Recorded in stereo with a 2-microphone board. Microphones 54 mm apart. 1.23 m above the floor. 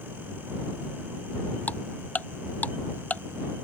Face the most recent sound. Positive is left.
turn(degrees=30)  # may be behind; listen again after turning